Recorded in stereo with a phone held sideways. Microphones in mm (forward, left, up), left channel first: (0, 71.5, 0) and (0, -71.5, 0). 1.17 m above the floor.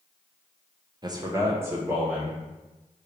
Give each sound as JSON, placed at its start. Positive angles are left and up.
{"t": 1.0, "sound": "a man speaking", "side_deg": -30, "distance_m": 0.6}